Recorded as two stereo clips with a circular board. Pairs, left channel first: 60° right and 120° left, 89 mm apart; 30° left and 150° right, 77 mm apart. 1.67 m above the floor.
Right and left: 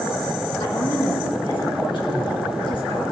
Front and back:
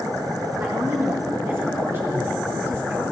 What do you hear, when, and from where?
0.6 s a woman speaking: 90° right, 1.9 m